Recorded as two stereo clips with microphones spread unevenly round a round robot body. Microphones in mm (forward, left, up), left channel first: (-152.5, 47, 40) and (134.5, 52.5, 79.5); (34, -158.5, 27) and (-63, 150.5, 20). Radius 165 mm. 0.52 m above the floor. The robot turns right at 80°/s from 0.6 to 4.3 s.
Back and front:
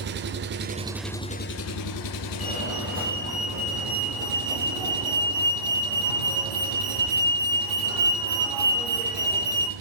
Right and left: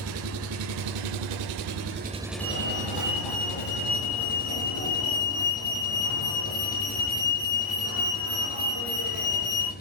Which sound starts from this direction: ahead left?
An engine running, at 0.0 s.